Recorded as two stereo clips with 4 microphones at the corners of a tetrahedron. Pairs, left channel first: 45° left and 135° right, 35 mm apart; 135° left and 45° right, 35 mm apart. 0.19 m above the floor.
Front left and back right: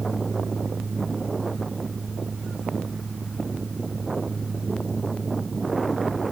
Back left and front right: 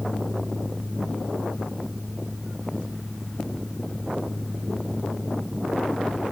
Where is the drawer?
I don't hear a drawer.